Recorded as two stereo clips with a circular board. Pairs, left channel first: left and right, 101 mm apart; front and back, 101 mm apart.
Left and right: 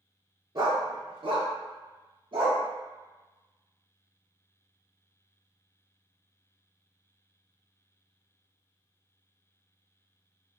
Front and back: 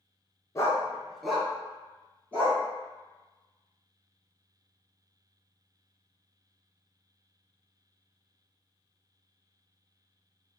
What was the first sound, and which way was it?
A dog barking, 55° right.